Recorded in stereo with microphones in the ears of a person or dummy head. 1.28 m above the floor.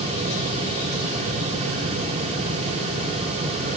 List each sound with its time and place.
Only background noise.